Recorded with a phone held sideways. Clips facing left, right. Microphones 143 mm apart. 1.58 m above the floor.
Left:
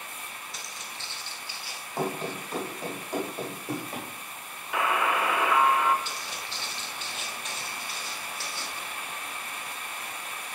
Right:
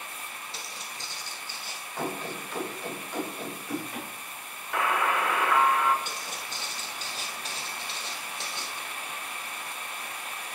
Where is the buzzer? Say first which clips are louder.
Even; 5° left (ahead or behind), 0.8 m.